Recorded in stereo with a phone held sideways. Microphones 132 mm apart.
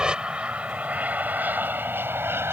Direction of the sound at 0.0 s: 5° right (ahead or behind).